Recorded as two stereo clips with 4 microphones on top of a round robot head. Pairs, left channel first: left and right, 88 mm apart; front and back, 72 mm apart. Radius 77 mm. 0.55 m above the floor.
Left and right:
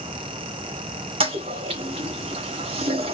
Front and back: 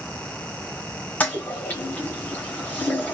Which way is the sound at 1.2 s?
75° right.